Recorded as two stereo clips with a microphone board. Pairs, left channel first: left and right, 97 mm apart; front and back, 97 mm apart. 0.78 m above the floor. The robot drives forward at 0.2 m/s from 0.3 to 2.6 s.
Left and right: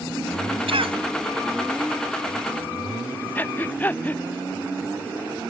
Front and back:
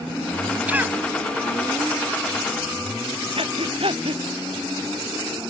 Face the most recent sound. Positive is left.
turn(degrees=160)